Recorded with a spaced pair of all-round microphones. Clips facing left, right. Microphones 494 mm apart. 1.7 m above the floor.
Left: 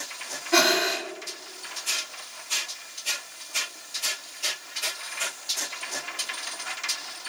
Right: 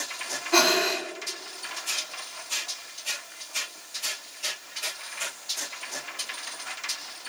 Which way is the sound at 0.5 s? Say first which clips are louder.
Even; 40° left (ahead or behind).